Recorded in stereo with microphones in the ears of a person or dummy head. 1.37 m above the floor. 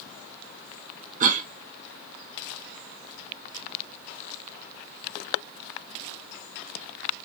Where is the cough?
45° right (ahead or behind), 0.6 m.